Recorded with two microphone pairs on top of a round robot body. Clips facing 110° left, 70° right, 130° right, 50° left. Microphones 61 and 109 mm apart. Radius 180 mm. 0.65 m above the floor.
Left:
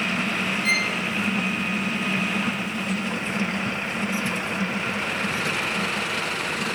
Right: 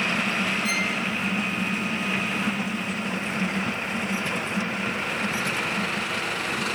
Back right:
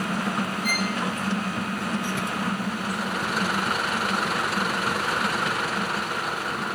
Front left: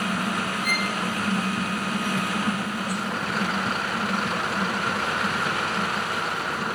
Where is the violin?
140° left, 3 m.